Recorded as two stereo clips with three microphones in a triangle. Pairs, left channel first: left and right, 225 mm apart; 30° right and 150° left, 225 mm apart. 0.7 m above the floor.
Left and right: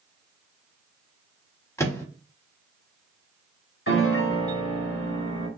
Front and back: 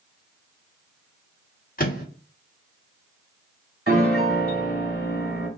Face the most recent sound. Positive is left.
turn(degrees=110)